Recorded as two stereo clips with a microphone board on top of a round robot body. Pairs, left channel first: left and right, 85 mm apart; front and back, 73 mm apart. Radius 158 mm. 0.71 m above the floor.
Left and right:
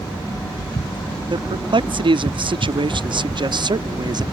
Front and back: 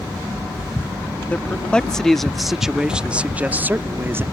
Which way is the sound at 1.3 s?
70° right.